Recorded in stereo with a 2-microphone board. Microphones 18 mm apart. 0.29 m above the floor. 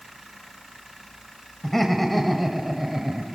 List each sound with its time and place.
1.6 s laughter: 15° left (ahead or behind), 1.1 m; by 3.2 s 25° right (ahead or behind), 1.0 m